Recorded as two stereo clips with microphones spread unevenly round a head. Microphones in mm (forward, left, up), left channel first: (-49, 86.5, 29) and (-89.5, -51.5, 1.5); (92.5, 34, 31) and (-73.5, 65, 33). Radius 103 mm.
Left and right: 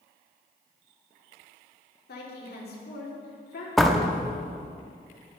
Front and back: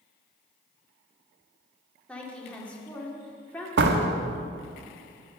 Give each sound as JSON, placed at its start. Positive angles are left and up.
{"t": 2.1, "sound": "a woman speaking", "azimuth_deg": 70, "distance_m": 3.0}
{"t": 3.8, "sound": "a door slam", "azimuth_deg": 160, "distance_m": 1.4}